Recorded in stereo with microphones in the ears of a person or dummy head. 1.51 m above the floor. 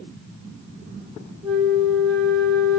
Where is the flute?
25° right (ahead or behind), 0.7 m.